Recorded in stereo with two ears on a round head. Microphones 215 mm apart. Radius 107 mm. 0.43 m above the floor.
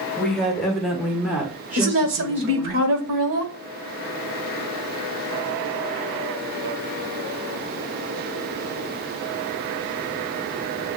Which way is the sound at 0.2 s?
5° left (ahead or behind).